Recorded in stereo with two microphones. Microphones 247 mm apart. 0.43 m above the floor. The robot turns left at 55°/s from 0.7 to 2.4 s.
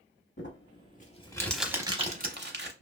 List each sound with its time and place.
0.4 s crumpling: 50° left (ahead or behind), 0.7 m; by 2.7 s 45° right (ahead or behind), 0.7 m